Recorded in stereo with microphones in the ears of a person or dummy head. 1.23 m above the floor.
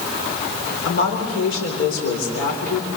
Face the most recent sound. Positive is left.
turn(degrees=80)